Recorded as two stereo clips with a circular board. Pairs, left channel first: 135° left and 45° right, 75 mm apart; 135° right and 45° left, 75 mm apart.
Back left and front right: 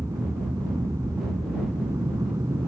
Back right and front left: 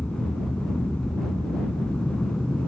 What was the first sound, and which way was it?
An aircraft, 60° right.